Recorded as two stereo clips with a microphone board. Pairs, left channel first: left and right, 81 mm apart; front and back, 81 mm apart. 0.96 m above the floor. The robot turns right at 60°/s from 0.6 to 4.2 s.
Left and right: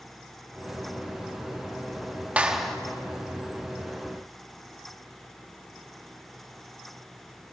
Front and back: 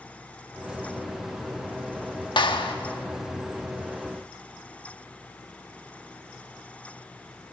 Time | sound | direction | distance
2.4 | a clap | 20° right | 1.1 m